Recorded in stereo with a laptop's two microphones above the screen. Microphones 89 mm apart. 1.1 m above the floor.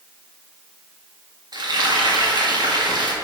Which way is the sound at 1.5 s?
50° right (ahead or behind).